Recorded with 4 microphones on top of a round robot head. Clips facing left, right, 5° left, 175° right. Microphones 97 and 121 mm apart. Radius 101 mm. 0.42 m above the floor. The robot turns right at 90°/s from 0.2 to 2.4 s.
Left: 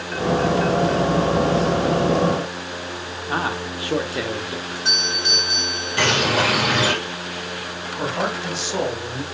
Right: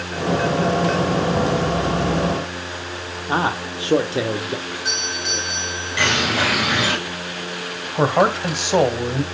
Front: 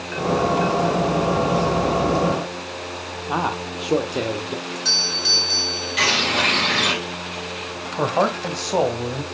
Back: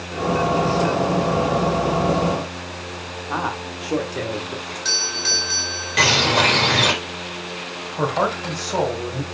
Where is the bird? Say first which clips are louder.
Left 1 dB, back 5 dB; 145° left, 3.5 m.